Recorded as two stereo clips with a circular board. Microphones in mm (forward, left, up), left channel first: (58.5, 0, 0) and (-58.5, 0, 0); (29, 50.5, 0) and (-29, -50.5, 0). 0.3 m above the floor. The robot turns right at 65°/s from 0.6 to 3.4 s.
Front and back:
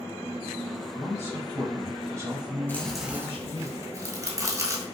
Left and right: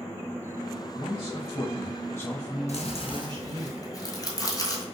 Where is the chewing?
75° left, 1.1 m; by 4.8 s 120° left, 1.1 m.